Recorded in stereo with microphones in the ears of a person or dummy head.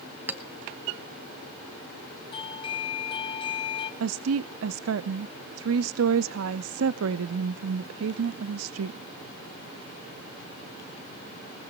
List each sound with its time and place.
0.3 s a clink: 10° right (ahead or behind), 0.7 m
2.3 s a doorbell: 20° left (ahead or behind), 1.2 m
4.0 s a woman speaking: 85° right, 0.6 m